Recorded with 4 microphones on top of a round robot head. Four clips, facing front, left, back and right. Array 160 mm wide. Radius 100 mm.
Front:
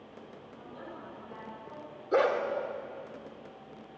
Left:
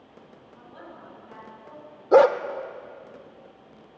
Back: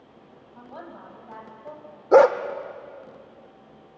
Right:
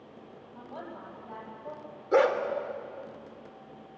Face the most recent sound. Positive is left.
turn(degrees=145)